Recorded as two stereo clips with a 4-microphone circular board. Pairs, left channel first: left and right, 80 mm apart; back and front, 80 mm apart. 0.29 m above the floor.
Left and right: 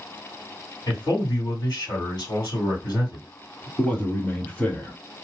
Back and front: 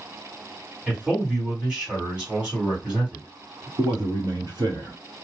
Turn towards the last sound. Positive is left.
turn(degrees=20)